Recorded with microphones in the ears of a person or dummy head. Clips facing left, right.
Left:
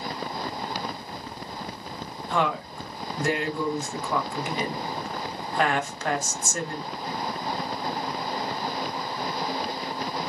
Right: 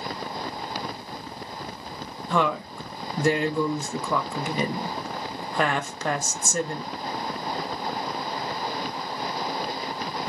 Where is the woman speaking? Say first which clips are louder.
Right 2 dB; 85° right, 0.7 m.